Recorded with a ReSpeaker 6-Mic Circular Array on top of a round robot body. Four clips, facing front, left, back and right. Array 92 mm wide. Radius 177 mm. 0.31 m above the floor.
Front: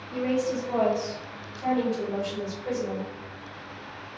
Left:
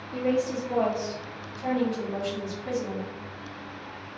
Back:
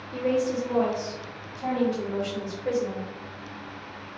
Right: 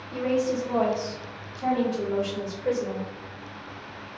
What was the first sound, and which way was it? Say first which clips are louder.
A woman speaking: right 1 dB, back 1 dB; 35° right.